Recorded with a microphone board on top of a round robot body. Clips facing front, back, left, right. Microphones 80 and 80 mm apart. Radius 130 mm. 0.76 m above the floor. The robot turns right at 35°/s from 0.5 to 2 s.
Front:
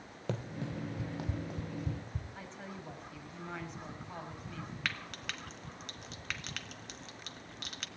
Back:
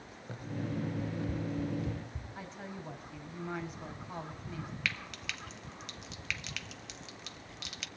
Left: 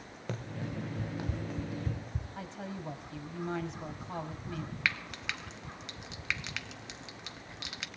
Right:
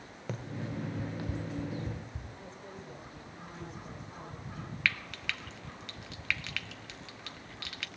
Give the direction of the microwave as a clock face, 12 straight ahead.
No microwave in this recording.